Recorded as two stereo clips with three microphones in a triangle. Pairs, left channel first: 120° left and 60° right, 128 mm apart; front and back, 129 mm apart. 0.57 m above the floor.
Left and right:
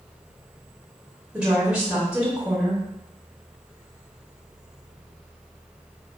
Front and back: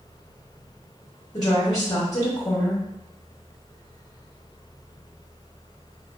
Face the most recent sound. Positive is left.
turn(degrees=20)